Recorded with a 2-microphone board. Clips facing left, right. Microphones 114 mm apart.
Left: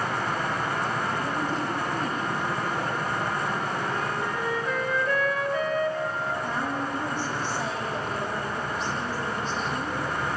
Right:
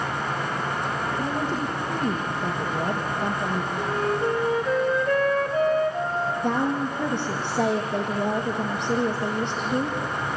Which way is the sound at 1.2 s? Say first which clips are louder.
Right 2 dB; 65° right (ahead or behind).